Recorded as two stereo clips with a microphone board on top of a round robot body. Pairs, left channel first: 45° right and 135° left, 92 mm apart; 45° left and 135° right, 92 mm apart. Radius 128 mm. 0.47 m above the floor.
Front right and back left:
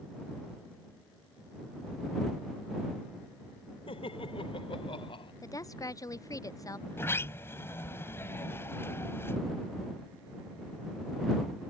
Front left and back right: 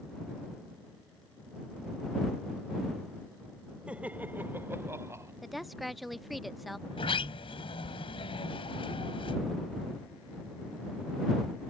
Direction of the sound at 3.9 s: 60° right.